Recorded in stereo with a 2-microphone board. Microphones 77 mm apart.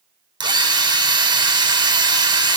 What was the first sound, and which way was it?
A drill, 70° right (ahead or behind).